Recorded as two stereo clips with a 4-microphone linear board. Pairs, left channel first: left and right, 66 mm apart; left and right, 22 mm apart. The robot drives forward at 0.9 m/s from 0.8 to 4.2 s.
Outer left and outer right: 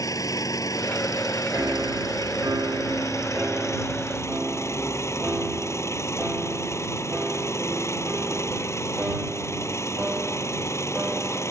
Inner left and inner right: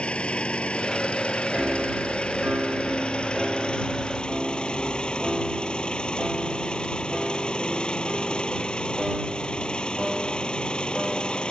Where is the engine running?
65° left (ahead or behind); by 11.5 s 50° left (ahead or behind).